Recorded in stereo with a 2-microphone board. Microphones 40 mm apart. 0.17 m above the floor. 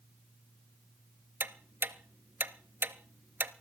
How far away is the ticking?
About 0.6 m.